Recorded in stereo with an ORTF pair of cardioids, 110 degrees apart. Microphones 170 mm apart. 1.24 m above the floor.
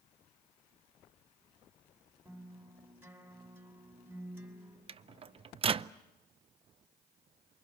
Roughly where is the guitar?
Ahead.